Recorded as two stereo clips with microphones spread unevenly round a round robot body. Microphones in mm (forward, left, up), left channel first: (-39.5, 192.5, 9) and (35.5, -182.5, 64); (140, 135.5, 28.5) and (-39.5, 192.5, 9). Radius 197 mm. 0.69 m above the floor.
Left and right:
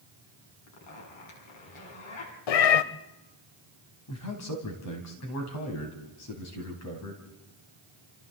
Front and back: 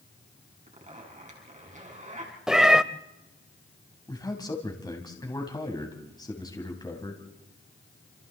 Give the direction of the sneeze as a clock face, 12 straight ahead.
No sneeze in this recording.